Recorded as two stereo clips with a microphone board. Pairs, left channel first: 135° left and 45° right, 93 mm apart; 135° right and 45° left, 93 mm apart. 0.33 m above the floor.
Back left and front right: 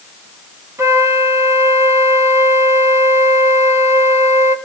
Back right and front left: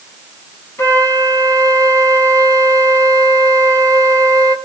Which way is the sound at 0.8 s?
85° right.